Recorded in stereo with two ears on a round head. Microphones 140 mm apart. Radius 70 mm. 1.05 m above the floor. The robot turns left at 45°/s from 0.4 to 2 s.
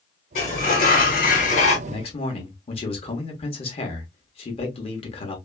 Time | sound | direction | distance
0.3 | a sliding door | 115° left | 1.5 m
1.9 | a man speaking | 35° left (ahead or behind) | 1.1 m